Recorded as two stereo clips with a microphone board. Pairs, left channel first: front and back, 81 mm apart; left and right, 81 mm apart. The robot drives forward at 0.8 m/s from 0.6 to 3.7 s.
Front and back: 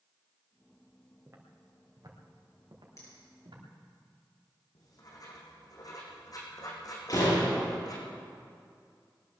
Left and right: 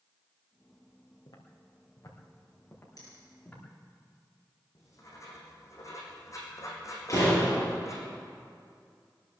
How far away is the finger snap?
About 7.5 m.